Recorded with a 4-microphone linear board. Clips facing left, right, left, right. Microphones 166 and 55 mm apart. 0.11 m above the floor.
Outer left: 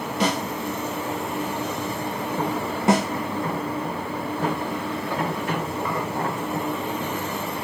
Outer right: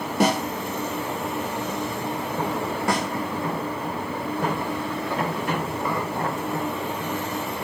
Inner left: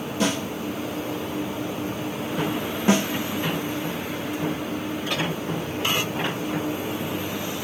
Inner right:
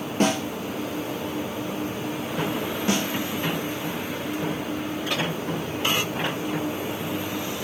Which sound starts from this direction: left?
A snare drum, at 2.9 s.